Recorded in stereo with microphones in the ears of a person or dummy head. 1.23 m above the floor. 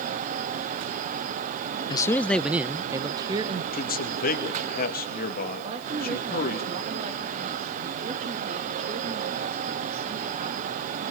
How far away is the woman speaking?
About 2.5 m.